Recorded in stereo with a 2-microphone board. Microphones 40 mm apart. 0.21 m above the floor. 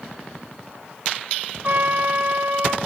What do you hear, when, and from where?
1.6 s a trumpet: 50° right (ahead or behind), 2.5 m